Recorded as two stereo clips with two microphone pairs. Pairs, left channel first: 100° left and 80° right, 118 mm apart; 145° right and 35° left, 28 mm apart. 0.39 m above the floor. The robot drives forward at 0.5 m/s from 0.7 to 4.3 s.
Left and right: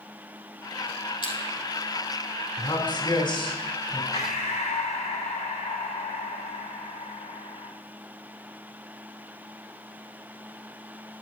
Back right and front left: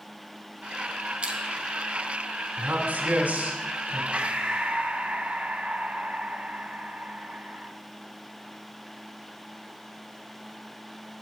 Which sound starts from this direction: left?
Breathing, at 4.1 s.